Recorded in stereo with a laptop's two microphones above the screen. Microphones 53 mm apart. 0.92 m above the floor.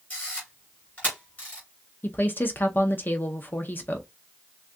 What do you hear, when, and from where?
0.1 s a camera shutter: 35° left (ahead or behind), 3 m
2.0 s a woman speaking: 40° left (ahead or behind), 0.7 m